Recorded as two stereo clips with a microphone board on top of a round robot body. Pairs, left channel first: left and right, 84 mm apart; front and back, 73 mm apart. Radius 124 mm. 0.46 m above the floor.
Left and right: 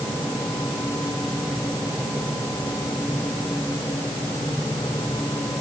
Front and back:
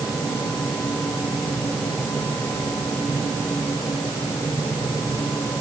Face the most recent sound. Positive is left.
No sound to turn to.